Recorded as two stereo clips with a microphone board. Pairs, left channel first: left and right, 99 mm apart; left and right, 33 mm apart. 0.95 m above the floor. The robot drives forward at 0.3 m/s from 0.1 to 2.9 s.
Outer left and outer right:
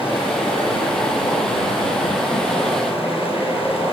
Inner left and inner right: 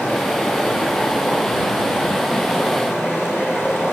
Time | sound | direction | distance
0.0 | running water | 70° left (ahead or behind) | 8.5 m